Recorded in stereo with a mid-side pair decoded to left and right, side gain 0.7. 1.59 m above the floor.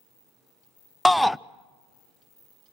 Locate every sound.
1.1 s a shout: 5° left, 0.6 m